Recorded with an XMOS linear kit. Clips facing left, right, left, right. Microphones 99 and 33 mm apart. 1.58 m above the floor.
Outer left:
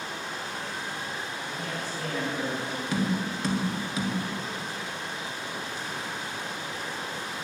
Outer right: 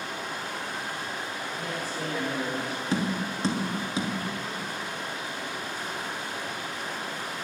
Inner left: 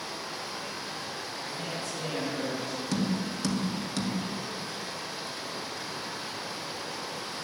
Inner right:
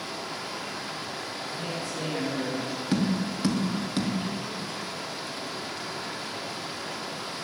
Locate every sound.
0.0 s running water: 55° right (ahead or behind), 2.5 m
1.4 s a woman speaking: 40° right (ahead or behind), 6 m
2.9 s tapping: 30° right (ahead or behind), 1.5 m